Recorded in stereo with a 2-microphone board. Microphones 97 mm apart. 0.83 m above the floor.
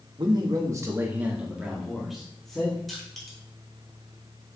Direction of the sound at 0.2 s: 50° right (ahead or behind).